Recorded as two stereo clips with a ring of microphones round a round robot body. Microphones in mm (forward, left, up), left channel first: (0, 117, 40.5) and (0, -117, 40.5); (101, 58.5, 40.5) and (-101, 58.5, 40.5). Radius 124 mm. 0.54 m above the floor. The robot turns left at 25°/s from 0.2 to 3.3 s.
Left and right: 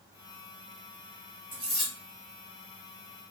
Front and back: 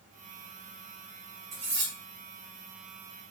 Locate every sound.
1.5 s cutlery clinking: 170° right, 1.2 m; by 1.9 s straight behind, 1.2 m